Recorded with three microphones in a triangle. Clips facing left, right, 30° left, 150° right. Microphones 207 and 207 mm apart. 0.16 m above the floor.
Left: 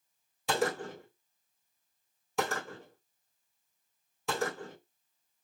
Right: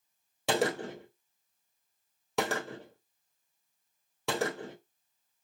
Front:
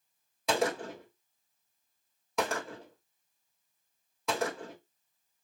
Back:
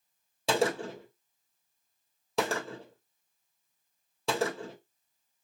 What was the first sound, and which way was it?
A gunshot, 90° right.